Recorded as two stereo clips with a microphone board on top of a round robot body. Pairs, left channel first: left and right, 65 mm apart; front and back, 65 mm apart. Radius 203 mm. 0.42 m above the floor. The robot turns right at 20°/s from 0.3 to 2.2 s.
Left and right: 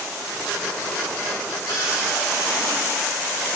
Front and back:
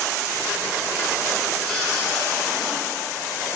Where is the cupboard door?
70° left, 7 m; by 2.7 s 80° left, 7 m.